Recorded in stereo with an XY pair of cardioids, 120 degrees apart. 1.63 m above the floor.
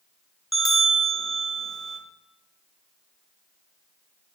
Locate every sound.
0.5 s a bell: 10° right, 0.6 m